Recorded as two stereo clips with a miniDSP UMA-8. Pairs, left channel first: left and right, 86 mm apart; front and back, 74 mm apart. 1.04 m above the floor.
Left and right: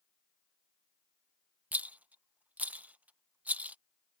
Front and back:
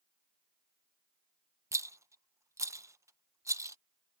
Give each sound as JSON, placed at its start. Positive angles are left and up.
{"t": 1.7, "sound": "a rattle", "azimuth_deg": -155}